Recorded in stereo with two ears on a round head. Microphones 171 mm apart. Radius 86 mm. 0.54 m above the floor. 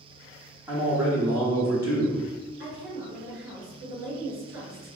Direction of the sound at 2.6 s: 55° right (ahead or behind).